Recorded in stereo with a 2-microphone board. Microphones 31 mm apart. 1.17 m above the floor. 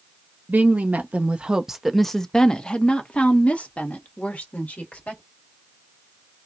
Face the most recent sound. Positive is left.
turn(degrees=55)  # may be behind; listen again after turning